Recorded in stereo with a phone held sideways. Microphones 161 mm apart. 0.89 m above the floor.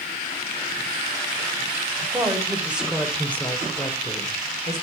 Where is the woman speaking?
20° right (ahead or behind), 3.5 m; by 4.8 s 50° left (ahead or behind), 3 m.